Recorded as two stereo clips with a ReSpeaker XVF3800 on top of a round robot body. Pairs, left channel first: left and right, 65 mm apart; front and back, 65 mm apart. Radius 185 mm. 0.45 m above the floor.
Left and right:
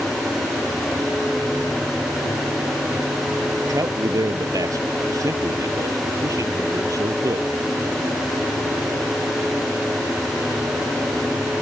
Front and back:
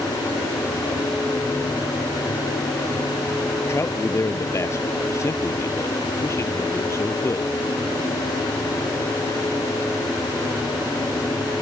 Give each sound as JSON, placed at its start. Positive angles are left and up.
{"t": 3.7, "sound": "a man speaking", "azimuth_deg": -50}